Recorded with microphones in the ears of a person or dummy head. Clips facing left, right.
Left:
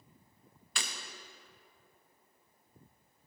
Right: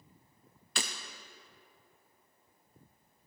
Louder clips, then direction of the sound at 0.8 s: Right 4 dB; 30° right (ahead or behind).